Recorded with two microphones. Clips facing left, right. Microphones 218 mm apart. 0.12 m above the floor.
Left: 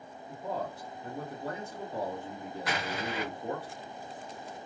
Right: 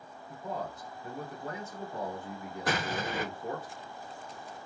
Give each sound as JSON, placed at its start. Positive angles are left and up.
{"t": 0.3, "sound": "a man speaking", "side_deg": 35, "distance_m": 1.3}
{"t": 2.7, "sound": "an explosion", "side_deg": -45, "distance_m": 0.6}